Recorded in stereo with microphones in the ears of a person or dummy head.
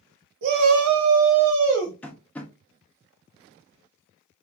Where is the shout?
50° right (ahead or behind), 0.7 m; by 1.9 s 75° right (ahead or behind), 1.9 m.